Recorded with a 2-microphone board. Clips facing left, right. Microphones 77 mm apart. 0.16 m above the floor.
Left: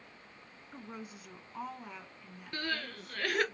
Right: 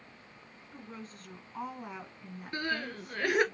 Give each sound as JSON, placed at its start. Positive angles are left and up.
{"t": 0.7, "sound": "a woman speaking", "side_deg": 25, "distance_m": 1.3}
{"t": 2.5, "sound": "crying", "side_deg": -20, "distance_m": 1.4}